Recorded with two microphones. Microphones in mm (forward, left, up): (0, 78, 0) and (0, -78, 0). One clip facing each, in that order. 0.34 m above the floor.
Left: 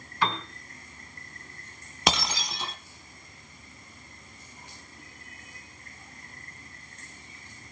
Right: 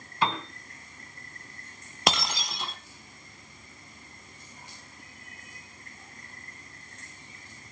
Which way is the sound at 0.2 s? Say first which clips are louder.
Right 1 dB; 25° right (ahead or behind).